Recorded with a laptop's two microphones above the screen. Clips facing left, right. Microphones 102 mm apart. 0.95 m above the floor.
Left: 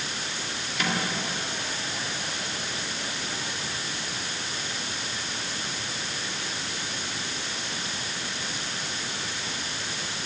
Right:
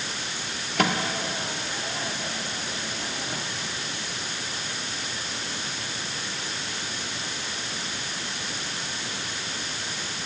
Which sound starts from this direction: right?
A microwave, at 0.8 s.